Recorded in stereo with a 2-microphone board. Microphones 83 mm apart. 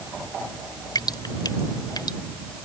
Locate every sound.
0.9 s dripping: 55° left (ahead or behind)